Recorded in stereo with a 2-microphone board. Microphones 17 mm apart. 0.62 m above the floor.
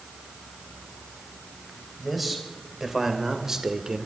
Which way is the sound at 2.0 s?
5° right (ahead or behind).